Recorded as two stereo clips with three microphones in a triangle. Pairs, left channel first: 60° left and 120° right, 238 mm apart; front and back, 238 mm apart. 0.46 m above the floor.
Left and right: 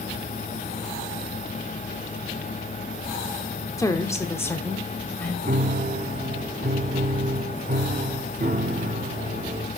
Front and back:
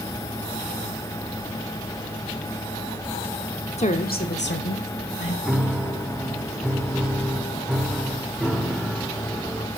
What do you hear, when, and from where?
3.8 s a woman speaking: straight ahead, 1.1 m; by 5.3 s 20° right, 2.5 m
5.5 s a piano: 90° right, 0.7 m